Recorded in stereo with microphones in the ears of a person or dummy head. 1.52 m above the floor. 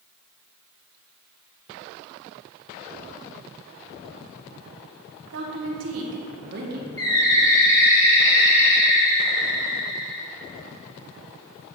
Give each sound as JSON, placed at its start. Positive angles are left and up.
{"t": 5.3, "sound": "a woman speaking", "side_deg": -65, "distance_m": 1.7}
{"t": 7.0, "sound": "a bird", "side_deg": 15, "distance_m": 3.5}